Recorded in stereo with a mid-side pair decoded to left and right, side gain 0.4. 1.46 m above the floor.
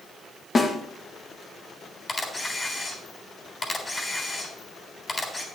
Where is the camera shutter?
30° left, 3.5 m.